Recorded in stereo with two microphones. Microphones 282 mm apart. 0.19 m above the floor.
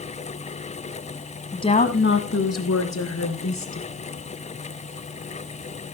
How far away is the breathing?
I don't hear breathing.